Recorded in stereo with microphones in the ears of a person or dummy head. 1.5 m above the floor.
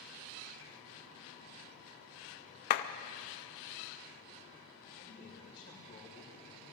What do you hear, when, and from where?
2.7 s a clap: 45° left (ahead or behind), 0.7 m
4.9 s a man speaking: 30° left (ahead or behind), 6 m